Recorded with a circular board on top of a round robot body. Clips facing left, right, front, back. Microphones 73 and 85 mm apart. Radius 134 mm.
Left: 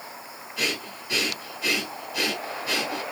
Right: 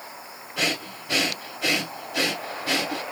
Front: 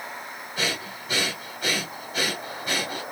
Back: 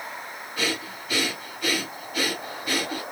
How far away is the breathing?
About 2.0 m.